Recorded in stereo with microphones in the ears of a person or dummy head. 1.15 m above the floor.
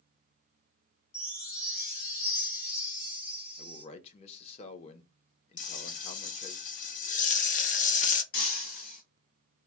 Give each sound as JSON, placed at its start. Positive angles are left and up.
{"t": 1.1, "sound": "a chime", "side_deg": 40, "distance_m": 1.2}
{"t": 3.6, "sound": "a man speaking", "side_deg": 35, "distance_m": 0.6}
{"t": 5.6, "sound": "frying", "side_deg": 40, "distance_m": 0.6}
{"t": 8.3, "sound": "breaking glass", "side_deg": 45, "distance_m": 1.4}